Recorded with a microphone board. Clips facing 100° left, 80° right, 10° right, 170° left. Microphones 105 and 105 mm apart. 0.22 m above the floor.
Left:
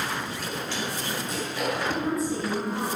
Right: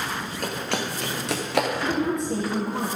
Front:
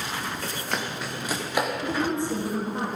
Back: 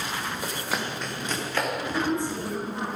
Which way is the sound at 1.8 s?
65° right.